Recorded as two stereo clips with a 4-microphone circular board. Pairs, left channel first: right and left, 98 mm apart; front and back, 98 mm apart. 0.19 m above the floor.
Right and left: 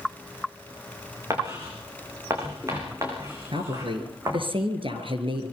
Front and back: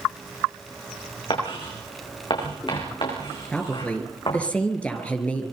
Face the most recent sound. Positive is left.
turn(degrees=75)